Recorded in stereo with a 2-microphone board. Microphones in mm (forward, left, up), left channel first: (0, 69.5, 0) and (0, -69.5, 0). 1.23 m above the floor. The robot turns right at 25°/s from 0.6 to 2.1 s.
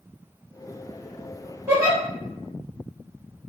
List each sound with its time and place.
1.7 s a giggle: 20° right (ahead or behind), 1.1 m; by 2.0 s 25° right (ahead or behind), 1.1 m